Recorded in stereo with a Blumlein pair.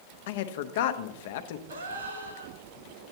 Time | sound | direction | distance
0.3 | a man speaking | 55° left | 0.6 m
1.7 | a gasp | 70° right | 1.8 m